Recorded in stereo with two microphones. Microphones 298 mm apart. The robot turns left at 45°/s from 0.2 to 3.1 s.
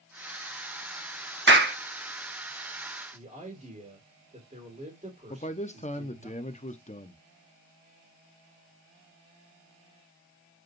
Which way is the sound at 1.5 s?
40° right (ahead or behind).